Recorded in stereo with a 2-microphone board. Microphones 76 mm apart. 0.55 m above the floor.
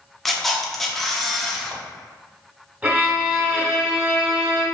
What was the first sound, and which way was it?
A camera shutter, 5° left (ahead or behind).